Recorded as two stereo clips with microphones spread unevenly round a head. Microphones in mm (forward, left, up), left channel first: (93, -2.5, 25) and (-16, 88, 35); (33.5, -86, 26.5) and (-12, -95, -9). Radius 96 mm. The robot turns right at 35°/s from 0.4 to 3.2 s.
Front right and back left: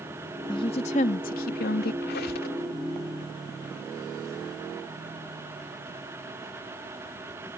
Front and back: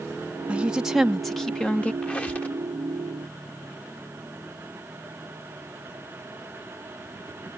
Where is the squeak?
45° right; by 2.6 s 25° right.